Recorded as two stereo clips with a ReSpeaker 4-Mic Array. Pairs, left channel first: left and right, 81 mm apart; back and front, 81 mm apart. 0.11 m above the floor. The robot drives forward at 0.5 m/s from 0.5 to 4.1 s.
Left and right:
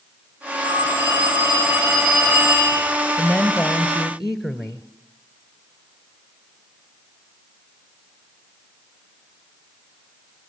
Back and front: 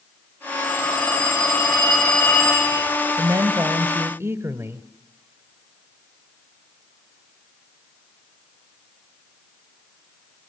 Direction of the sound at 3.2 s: 5° right.